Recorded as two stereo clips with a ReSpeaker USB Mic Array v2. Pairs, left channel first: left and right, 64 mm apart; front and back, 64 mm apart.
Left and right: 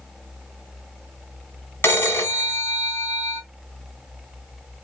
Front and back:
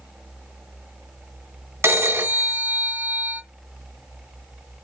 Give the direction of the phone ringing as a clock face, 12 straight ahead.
7 o'clock.